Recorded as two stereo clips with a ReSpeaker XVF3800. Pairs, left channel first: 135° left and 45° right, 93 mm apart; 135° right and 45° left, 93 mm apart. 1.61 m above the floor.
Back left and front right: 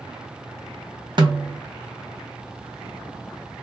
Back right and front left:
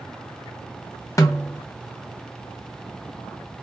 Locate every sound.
1.2 s a snare drum: 80° right, 0.9 m